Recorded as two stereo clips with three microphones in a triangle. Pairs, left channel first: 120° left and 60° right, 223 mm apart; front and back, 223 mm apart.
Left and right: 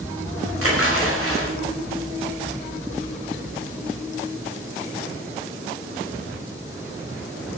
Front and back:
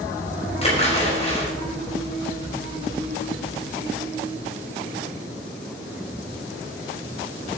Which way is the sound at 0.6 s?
60° right.